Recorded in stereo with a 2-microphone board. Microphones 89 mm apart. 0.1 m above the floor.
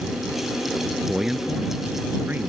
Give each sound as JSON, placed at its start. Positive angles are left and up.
{"t": 1.1, "sound": "a man speaking", "side_deg": -5}